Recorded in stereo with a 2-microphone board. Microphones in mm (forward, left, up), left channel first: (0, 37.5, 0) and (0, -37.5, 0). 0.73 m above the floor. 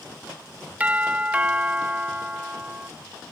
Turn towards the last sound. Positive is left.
turn(degrees=-20)  # may be behind; listen again after turning